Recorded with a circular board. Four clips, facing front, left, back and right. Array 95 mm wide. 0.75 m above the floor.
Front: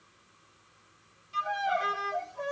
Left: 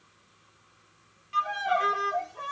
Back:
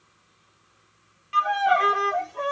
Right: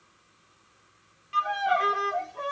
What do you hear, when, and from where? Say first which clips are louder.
1.3 s a violin: right 2 dB, back 9 dB; 170° right, 0.8 m